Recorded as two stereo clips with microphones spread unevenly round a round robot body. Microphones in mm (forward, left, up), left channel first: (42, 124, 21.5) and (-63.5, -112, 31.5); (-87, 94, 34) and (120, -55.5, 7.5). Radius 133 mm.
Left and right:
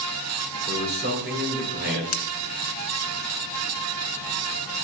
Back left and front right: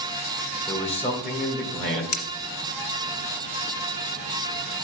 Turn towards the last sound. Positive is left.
turn(degrees=105)